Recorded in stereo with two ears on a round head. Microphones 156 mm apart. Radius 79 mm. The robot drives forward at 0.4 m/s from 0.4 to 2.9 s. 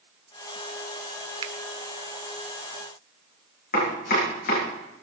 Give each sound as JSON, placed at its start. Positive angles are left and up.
{"t": 1.4, "sound": "a finger snap", "side_deg": -30, "distance_m": 0.7}
{"t": 3.7, "sound": "chopping", "side_deg": 55, "distance_m": 8.5}